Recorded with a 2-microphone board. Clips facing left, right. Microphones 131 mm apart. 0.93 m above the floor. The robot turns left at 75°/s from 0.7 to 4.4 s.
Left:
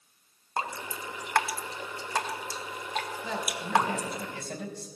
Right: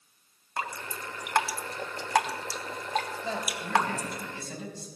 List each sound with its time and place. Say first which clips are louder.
0.6 s dripping: left 2 dB; 25° left (ahead or behind), 0.7 m; by 4.2 s 55° left (ahead or behind), 0.7 m
3.2 s a man speaking: even; 150° right, 3.5 m; by 4.9 s 120° left, 3.5 m